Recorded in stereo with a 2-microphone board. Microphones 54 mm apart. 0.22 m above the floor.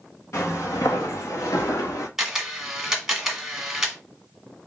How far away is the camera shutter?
About 1.4 m.